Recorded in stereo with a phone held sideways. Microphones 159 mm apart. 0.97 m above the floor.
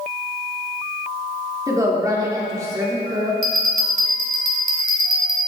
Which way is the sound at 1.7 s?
20° right (ahead or behind).